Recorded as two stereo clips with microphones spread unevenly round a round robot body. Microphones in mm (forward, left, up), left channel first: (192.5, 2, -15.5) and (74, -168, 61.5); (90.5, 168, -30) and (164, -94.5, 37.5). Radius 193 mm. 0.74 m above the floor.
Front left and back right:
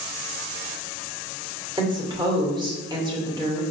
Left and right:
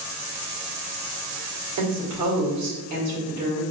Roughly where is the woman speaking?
Ahead right.